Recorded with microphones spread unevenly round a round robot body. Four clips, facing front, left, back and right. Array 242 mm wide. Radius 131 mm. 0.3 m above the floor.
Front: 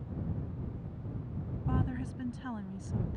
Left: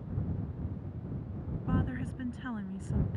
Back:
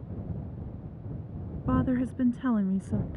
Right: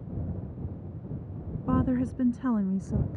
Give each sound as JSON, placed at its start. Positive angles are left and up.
{"t": 1.7, "sound": "a woman speaking", "azimuth_deg": -135}